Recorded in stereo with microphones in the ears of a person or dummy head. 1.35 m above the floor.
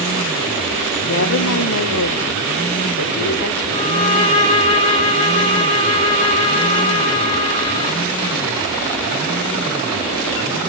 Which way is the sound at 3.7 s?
25° left (ahead or behind).